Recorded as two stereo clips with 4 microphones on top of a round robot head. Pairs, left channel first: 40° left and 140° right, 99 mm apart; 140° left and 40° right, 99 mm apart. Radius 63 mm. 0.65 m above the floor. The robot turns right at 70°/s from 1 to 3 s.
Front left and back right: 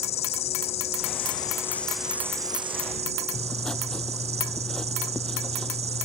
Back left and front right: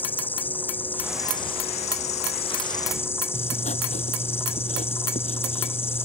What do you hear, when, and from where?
0.0 s an insect: 65° left; by 6.1 s 155° right
3.3 s writing: 130° left